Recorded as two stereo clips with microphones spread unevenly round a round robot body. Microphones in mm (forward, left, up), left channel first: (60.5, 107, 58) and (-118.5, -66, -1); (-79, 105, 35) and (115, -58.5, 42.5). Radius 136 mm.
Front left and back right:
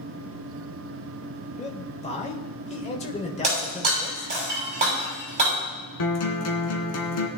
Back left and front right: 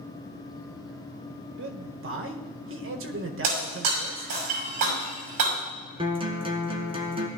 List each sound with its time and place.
1.6 s a man speaking: 25° right, 1.4 m
3.4 s breaking glass: 70° right, 6 m
6.0 s a guitar: 30° left, 2 m